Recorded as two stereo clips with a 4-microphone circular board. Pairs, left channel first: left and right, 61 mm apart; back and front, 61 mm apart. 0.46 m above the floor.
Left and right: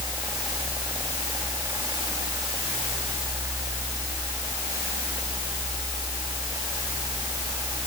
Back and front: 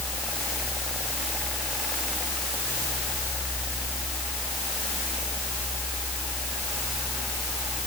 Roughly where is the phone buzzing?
I don't hear a phone buzzing.